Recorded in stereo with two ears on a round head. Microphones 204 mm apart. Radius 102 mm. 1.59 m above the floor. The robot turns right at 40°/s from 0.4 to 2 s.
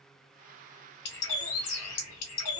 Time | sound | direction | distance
1.1 | a bird | 50° left | 0.8 m